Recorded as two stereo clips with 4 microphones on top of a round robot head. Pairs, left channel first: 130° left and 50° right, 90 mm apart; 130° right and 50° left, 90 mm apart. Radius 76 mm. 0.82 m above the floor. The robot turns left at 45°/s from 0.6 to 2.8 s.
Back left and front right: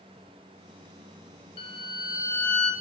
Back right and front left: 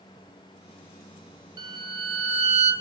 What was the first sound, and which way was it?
A violin, 100° left.